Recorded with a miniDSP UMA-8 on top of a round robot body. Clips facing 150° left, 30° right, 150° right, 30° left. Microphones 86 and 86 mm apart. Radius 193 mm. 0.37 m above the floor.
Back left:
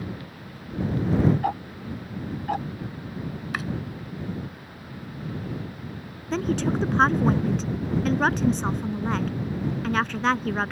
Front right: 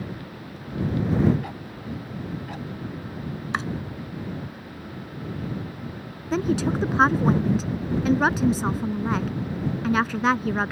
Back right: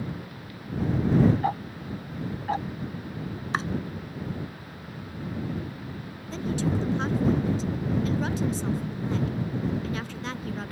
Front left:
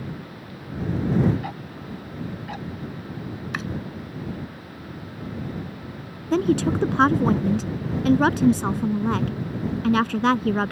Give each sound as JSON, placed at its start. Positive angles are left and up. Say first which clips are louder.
{"t": 1.4, "sound": "ticking", "louder": "back left 7 dB, back right 5 dB", "azimuth_deg": 165}
{"t": 3.5, "sound": "chopping", "louder": "front right 4 dB, back right 3 dB", "azimuth_deg": -90}
{"t": 6.3, "sound": "a woman speaking", "louder": "front right 1 dB, front left 8 dB", "azimuth_deg": 55}